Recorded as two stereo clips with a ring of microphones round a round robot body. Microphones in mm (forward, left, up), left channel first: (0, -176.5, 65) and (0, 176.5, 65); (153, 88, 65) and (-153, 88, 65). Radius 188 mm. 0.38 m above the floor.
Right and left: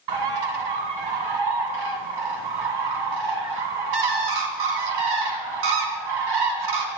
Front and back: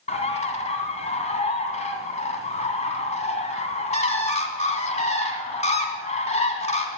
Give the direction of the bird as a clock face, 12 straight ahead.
10 o'clock.